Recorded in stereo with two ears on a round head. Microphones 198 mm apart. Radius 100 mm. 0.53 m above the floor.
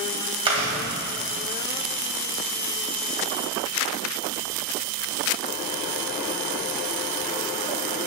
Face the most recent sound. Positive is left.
turn(degrees=-25)  # may be behind; listen again after turning